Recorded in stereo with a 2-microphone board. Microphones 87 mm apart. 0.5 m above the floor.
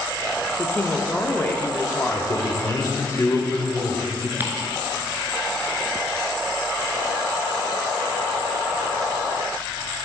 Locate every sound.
0.6 s a woman speaking: 20° left (ahead or behind), 0.8 m
2.1 s a man speaking: 35° left (ahead or behind), 1.3 m
4.4 s ticking: 25° right (ahead or behind), 1.1 m